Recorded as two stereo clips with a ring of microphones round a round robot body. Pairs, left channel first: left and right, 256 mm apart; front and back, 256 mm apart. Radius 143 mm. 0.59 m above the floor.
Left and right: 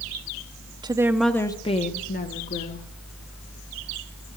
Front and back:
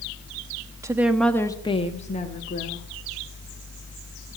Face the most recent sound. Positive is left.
turn(degrees=50)